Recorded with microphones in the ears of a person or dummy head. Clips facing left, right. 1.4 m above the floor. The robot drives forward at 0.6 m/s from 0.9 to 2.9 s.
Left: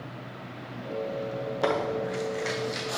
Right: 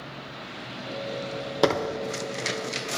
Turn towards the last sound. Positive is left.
turn(degrees=-35)  # may be behind; listen again after turning